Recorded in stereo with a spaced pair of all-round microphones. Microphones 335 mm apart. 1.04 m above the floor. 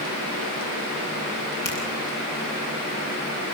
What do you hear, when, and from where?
1.6 s a finger snap: 65° left (ahead or behind), 10 m